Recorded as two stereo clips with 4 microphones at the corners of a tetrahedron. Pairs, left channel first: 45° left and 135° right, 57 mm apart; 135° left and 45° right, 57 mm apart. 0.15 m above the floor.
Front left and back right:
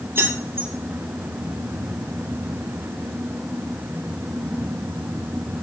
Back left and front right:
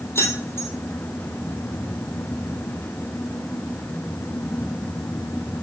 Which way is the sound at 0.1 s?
175° left.